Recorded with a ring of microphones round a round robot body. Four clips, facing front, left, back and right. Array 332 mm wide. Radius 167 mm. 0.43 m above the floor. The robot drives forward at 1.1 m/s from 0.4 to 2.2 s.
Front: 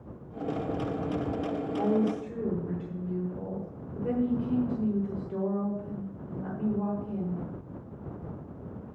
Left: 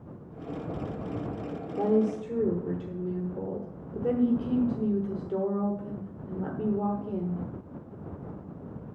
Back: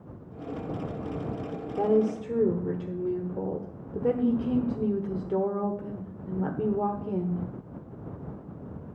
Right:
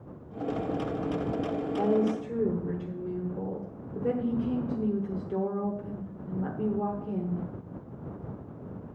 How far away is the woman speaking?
About 1.1 m.